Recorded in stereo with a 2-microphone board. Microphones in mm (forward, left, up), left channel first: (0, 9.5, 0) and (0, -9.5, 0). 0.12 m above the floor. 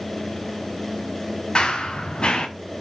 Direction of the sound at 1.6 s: 55° left (ahead or behind).